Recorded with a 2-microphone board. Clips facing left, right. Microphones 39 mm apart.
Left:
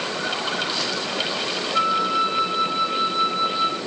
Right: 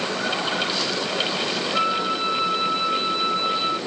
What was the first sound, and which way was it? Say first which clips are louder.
A flute: left 4 dB; 5° right (ahead or behind).